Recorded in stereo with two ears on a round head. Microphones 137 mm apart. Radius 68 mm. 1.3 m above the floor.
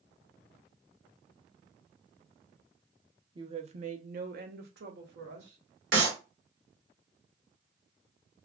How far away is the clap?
About 1.7 m.